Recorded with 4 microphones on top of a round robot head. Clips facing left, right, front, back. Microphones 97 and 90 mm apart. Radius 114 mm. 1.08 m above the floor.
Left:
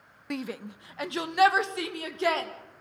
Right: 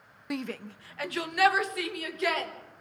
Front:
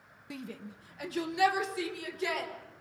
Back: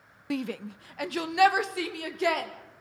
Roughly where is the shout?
Behind.